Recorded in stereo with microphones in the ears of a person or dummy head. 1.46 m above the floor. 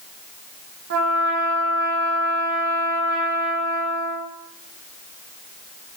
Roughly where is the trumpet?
Right.